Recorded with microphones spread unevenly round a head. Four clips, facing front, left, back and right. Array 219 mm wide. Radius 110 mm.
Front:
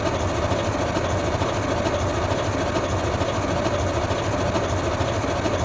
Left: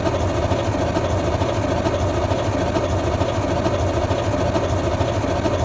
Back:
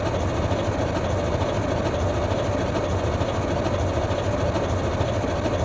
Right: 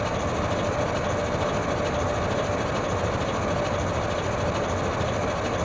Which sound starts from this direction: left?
An engine running, at 0.0 s.